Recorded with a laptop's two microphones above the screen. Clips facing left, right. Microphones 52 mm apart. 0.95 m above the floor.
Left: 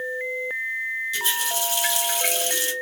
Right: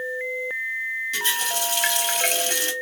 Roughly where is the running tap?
Right.